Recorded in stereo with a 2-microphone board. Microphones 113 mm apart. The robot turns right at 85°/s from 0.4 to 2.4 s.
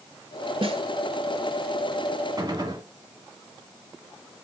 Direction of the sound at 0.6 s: 55° right (ahead or behind).